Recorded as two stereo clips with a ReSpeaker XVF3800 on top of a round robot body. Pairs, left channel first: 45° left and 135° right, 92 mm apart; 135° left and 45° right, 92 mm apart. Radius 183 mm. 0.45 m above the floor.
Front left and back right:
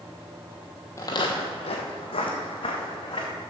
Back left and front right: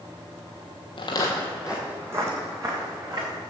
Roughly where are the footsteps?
Left.